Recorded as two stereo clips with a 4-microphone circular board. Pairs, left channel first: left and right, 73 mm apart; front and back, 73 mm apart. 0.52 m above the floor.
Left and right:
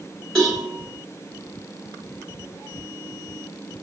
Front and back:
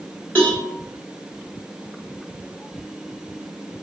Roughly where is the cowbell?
Ahead left.